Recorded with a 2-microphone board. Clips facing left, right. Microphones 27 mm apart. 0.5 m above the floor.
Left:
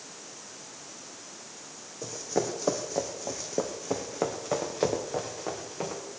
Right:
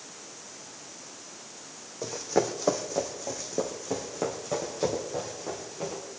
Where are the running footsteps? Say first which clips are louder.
Right 3 dB; 30° right (ahead or behind), 1.7 m; by 6.0 s 40° left (ahead or behind), 4 m.